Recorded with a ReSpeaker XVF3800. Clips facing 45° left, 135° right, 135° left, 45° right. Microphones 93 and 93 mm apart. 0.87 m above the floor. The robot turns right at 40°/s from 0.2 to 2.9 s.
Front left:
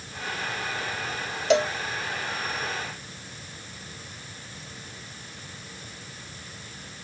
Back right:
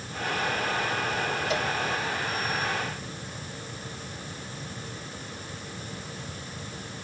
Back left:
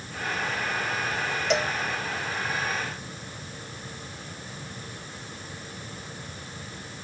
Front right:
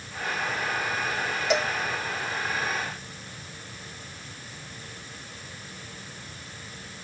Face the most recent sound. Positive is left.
turn(degrees=100)